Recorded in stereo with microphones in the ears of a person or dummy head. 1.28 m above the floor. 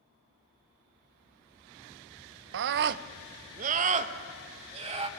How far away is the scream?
About 0.5 m.